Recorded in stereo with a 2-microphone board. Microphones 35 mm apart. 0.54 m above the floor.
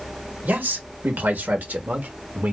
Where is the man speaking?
65° right (ahead or behind), 1.9 m; by 2.5 s 45° right (ahead or behind), 1.3 m.